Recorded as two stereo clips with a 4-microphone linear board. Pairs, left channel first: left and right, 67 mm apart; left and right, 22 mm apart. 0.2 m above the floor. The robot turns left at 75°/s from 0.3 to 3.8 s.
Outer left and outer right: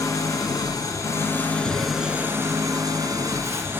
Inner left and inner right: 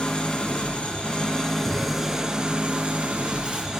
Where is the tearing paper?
30° left (ahead or behind), 1.5 m; by 3.6 s 40° right (ahead or behind), 1.5 m.